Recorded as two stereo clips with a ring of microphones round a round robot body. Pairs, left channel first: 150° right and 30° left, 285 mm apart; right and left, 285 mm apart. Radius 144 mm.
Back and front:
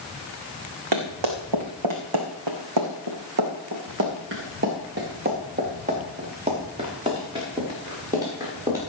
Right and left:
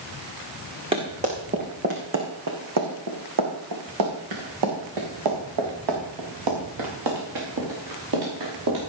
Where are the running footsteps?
20° left, 3.5 m; by 8.8 s 110° left, 8 m.